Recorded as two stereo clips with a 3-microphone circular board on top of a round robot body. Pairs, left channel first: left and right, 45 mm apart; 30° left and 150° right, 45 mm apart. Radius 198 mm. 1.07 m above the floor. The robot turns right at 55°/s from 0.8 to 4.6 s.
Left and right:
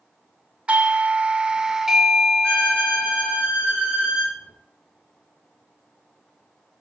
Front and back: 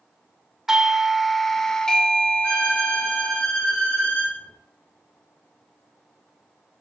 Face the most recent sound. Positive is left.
turn(degrees=10)